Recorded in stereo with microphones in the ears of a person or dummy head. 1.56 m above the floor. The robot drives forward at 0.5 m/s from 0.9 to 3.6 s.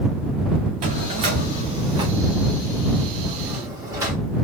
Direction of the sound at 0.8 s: 25° right (ahead or behind).